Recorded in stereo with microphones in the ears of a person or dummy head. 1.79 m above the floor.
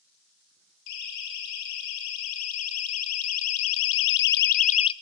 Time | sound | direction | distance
0.9 | a siren | 60° left (ahead or behind) | 2.5 m